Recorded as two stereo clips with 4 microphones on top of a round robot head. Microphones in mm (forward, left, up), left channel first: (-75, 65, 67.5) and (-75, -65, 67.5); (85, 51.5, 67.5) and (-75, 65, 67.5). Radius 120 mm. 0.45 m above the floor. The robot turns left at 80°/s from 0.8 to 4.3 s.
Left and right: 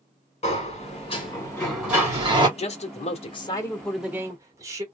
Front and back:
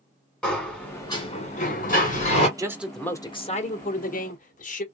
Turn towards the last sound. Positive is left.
turn(degrees=-25)